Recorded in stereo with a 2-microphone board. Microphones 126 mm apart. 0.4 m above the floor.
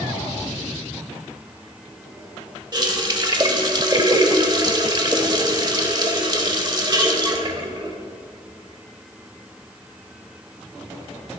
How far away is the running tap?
About 0.9 m.